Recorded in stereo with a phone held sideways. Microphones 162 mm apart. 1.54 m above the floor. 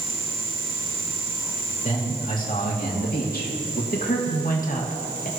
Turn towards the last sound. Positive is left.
turn(degrees=55)  # may be behind; listen again after turning